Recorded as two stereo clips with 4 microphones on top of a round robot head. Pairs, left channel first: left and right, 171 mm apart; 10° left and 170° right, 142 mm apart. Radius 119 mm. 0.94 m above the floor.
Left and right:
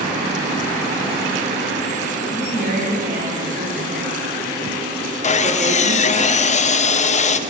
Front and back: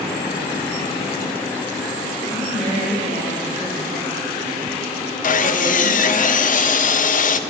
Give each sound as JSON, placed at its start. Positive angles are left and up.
{"t": 2.2, "sound": "a woman speaking", "azimuth_deg": -55, "distance_m": 6.5}
{"t": 5.2, "sound": "sawing", "azimuth_deg": 40, "distance_m": 0.6}